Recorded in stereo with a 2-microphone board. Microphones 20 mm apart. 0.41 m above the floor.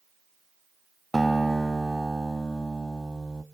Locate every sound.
1.1 s a guitar: 15° left (ahead or behind), 0.7 m